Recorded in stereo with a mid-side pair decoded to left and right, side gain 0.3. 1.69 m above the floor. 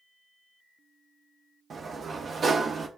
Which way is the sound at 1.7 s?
55° right.